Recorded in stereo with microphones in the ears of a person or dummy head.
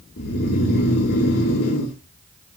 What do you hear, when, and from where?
0.2 s snoring: 50° left (ahead or behind), 1.9 m